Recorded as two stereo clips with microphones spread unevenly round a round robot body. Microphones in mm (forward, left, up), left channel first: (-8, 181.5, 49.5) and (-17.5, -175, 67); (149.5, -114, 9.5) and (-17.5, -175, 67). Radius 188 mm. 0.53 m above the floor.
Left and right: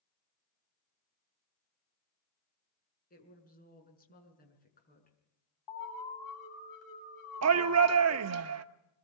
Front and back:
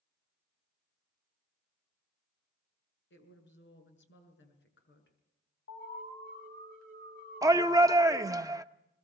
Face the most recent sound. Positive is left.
turn(degrees=-75)